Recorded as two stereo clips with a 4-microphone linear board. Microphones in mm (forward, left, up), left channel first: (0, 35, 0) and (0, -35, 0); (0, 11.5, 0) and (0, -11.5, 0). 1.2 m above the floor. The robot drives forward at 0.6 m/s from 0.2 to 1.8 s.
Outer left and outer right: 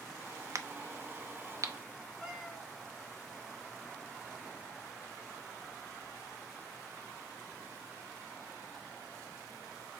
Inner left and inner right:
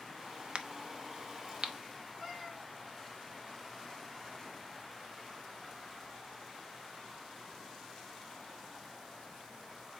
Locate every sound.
0.6 s a crack: 50° right (ahead or behind), 0.8 m; by 1.7 s 45° right (ahead or behind), 0.8 m
2.2 s a cat meowing: 10° left (ahead or behind), 5 m